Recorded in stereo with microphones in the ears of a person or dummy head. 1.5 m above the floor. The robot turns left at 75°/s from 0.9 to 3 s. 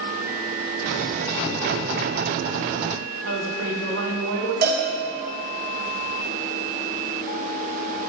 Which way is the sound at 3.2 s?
80° right.